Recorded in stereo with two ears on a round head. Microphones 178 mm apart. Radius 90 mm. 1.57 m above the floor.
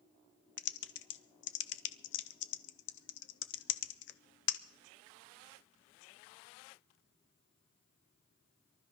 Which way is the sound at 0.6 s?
60° left (ahead or behind).